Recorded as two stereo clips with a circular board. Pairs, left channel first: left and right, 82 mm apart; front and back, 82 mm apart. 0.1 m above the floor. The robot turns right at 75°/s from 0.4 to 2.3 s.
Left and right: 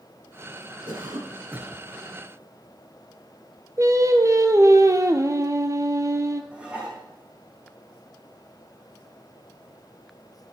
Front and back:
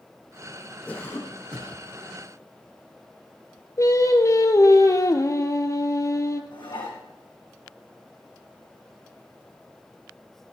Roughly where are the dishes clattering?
Ahead.